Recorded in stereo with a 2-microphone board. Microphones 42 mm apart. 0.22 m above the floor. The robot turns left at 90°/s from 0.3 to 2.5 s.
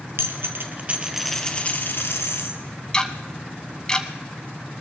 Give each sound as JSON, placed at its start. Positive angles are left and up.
{"t": 0.2, "sound": "a dropped coin", "azimuth_deg": -95, "distance_m": 1.7}
{"t": 2.9, "sound": "ticking", "side_deg": 20, "distance_m": 1.0}